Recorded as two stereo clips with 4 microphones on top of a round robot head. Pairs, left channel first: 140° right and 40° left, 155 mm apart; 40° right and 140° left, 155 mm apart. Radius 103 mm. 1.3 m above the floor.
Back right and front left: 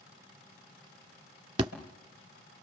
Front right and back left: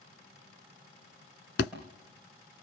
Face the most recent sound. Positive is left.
turn(degrees=-20)